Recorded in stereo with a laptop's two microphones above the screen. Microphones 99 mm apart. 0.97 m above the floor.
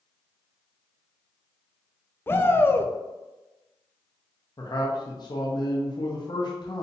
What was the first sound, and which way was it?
A shout, 25° left (ahead or behind).